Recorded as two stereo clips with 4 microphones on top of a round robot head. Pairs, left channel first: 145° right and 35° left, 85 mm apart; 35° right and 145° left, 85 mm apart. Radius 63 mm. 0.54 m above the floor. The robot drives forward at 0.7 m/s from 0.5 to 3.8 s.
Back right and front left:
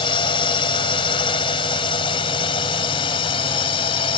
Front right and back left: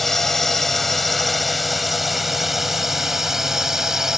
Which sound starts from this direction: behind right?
A drone, at 0.0 s.